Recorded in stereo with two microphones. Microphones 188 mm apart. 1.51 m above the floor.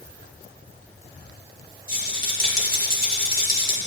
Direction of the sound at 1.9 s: 50° right (ahead or behind).